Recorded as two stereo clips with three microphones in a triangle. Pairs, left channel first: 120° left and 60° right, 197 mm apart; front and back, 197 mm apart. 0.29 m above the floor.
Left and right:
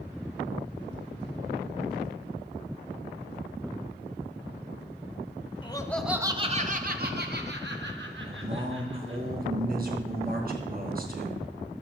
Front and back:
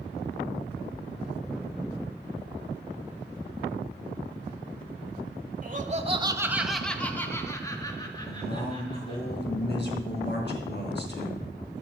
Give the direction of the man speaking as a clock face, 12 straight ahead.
1 o'clock.